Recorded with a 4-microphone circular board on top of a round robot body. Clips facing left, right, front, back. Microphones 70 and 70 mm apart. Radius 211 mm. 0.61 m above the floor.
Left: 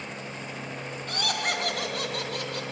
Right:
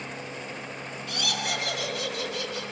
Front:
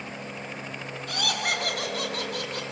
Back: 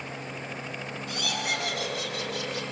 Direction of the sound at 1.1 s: 40° left.